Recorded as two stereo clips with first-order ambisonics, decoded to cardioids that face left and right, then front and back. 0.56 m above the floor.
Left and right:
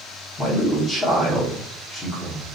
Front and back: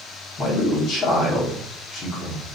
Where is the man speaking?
20° left, 1.0 m.